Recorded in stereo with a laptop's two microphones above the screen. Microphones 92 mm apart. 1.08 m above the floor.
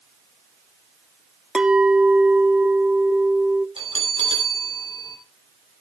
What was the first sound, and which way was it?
A clink, 10° right (ahead or behind).